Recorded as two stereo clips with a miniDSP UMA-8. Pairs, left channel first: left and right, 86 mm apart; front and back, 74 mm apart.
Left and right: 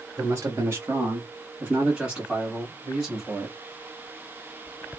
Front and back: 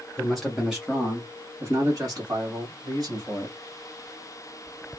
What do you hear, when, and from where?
0.2 s a man speaking: 85° right, 1.1 m; by 3.5 s 170° left, 1.8 m